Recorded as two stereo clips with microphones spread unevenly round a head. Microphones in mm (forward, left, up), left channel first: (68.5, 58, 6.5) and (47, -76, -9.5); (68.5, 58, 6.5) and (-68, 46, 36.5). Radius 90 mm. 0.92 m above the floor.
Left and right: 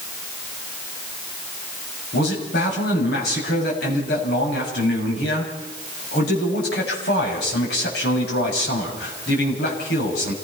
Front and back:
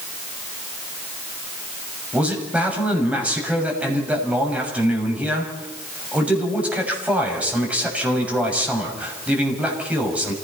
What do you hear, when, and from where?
2.1 s a man speaking: 105° left, 6.5 m